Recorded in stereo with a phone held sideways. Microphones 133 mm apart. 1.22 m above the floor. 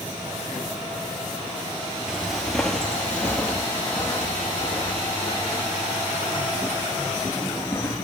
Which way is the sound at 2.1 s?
5° right (ahead or behind).